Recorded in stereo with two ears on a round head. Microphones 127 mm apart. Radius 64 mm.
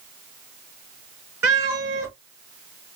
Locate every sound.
1.4 s a cat meowing: 15° right (ahead or behind), 3 m